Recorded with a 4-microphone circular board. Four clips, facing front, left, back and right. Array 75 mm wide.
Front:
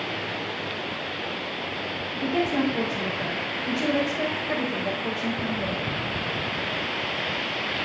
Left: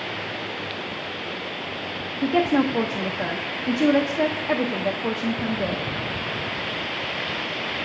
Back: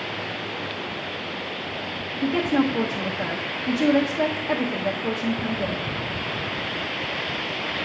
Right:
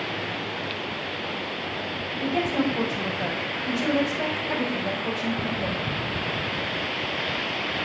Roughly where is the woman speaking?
Left.